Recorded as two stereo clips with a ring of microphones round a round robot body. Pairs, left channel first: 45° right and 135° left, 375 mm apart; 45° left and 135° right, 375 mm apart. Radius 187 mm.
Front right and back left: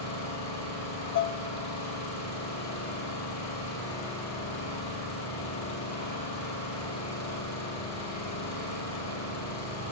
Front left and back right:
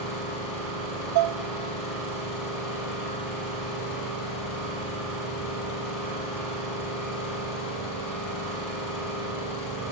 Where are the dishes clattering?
100° right, 0.5 m.